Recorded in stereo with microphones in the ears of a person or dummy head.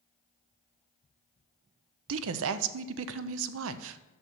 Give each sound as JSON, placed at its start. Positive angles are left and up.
{"t": 2.1, "sound": "a woman speaking", "side_deg": -75, "distance_m": 0.6}